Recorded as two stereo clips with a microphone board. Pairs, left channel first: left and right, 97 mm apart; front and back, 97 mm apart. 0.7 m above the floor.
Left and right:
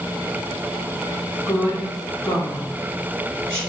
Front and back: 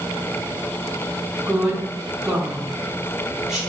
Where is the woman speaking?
105° left, 1.1 m.